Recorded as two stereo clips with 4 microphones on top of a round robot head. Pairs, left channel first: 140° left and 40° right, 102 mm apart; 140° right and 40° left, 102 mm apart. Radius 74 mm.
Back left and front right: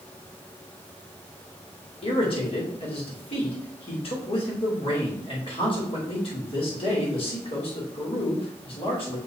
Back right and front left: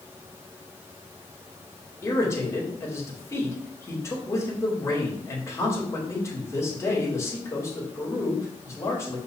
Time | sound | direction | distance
2.0 | a man speaking | 160° left | 2.5 m